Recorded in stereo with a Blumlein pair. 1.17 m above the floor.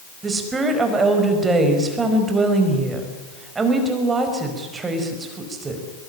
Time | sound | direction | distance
0.2 | a woman speaking | 15° right | 5 m